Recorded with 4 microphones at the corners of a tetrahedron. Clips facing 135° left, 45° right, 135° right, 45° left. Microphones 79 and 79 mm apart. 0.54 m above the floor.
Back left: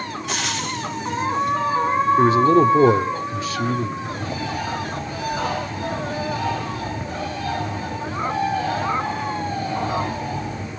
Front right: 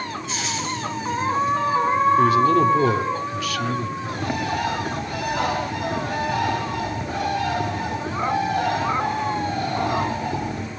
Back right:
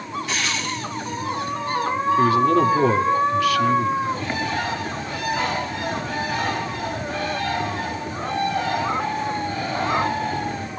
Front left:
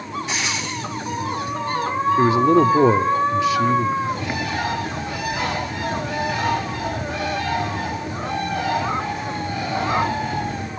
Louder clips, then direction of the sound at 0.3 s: Back left 2 dB, back right 2 dB; 115° left.